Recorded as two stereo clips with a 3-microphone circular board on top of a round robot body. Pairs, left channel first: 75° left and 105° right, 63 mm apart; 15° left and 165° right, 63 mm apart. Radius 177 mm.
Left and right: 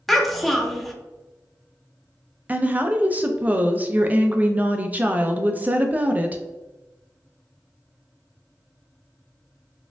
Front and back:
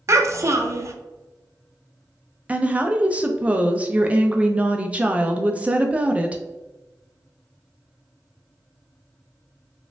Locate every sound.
0.1 s a child speaking: 165° left, 0.7 m
2.5 s a woman speaking: 125° right, 0.6 m